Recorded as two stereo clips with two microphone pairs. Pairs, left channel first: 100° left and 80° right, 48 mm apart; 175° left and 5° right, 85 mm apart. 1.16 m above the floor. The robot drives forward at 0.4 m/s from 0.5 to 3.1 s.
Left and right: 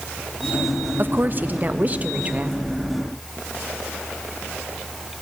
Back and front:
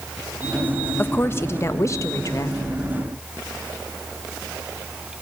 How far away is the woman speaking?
About 1.3 m.